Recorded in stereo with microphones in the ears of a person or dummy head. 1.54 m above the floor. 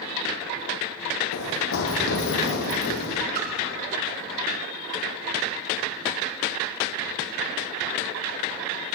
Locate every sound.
1.3 s running footsteps: 60° left (ahead or behind), 3.5 m; by 3.2 s 55° left (ahead or behind), 3 m
3.4 s a splash: 50° right (ahead or behind), 2.5 m